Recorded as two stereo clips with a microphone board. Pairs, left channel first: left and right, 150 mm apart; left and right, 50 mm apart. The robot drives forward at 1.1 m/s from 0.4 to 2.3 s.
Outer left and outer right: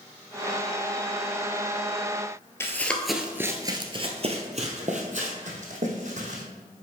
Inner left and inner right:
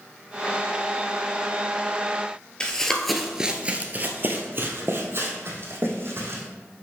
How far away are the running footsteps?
About 1.1 m.